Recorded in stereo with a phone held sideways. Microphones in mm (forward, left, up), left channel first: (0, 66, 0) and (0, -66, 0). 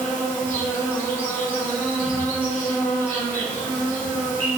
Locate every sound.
0.0 s an insect: 15° left (ahead or behind), 1.9 m